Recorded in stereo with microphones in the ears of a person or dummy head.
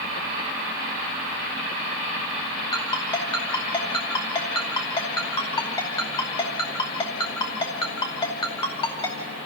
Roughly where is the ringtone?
Left.